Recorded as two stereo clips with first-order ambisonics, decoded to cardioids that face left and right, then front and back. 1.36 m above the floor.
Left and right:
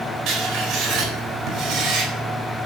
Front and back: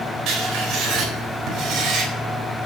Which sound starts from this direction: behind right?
Writing, at 0.3 s.